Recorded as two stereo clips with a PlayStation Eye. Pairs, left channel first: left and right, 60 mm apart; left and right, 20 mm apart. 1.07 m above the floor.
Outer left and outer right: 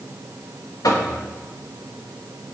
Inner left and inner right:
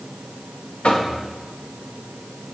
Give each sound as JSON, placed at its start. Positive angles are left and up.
{"t": 0.8, "sound": "knocking", "side_deg": 75, "distance_m": 1.2}